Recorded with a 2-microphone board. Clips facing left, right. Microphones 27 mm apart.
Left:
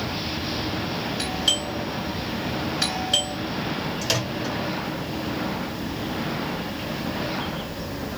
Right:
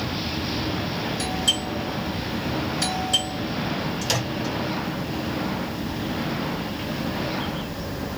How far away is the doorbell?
About 2.5 m.